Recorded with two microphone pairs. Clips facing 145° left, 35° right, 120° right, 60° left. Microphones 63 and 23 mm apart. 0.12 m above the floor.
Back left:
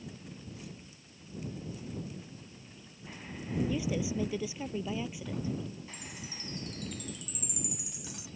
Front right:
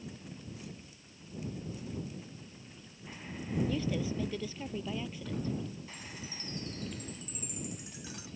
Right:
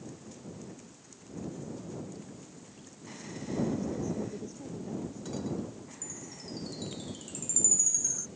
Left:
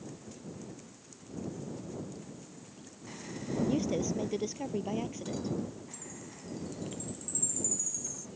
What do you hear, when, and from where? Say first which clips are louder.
3.7 s a woman speaking: back left 1 dB, left 3 dB; 65° left
5.9 s a chime: even, right 1 dB; 85° right